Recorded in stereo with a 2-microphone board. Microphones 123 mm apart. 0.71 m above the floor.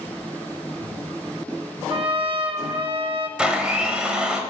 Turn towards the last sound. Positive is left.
turn(degrees=-10)  # may be behind; listen again after turning